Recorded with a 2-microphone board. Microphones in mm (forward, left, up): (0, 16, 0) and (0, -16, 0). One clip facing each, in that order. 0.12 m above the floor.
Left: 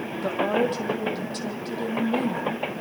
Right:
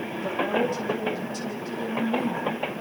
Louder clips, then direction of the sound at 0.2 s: Left 2 dB; 55° left (ahead or behind).